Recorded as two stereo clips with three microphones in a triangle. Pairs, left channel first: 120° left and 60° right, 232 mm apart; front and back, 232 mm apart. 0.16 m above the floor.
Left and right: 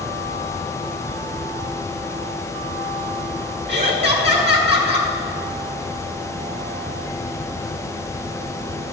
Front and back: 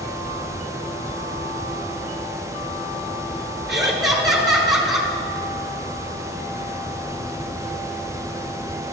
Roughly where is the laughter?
Right.